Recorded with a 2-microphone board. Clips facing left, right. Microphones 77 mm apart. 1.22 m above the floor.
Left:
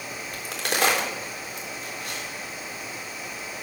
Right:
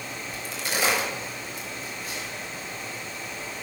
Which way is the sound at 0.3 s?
75° left (ahead or behind).